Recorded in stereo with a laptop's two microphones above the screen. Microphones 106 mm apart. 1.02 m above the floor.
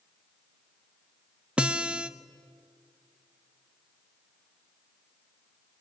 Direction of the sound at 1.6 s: 10° right (ahead or behind).